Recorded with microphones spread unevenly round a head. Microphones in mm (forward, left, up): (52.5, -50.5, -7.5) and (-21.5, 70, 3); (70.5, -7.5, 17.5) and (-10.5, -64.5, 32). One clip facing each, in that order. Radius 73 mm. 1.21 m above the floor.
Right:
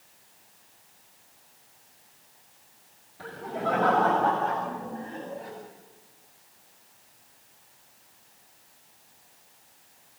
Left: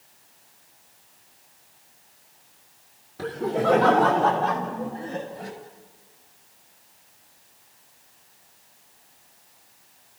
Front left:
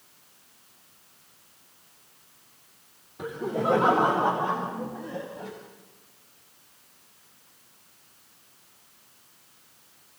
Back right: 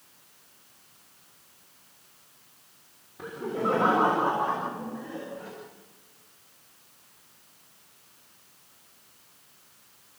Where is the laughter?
110° left, 3.5 m.